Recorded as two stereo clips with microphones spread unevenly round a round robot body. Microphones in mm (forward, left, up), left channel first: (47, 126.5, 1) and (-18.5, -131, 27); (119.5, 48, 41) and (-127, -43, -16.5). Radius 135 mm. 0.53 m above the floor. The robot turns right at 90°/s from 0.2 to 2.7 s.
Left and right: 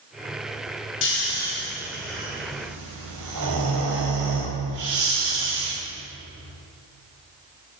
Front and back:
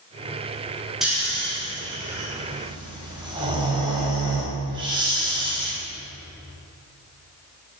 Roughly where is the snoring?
Behind left.